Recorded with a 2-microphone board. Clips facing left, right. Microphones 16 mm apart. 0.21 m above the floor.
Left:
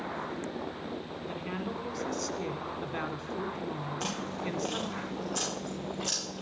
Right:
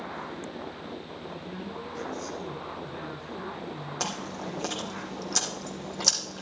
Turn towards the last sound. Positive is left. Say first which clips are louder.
# right 4 dB
turn(degrees=-65)  # may be behind; listen again after turning